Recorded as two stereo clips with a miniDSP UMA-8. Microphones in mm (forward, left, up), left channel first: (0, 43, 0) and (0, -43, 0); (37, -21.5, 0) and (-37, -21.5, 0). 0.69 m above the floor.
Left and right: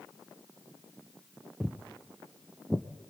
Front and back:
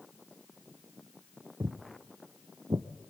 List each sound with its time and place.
1.6 s footsteps: 170° right, 1.0 m